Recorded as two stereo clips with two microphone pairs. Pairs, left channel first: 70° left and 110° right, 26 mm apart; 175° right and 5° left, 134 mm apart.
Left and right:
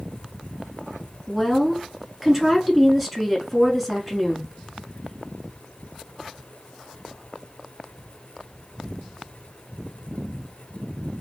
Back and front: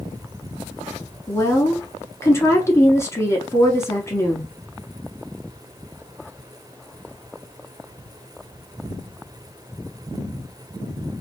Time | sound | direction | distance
1.3 | a woman speaking | 165° left | 1.1 m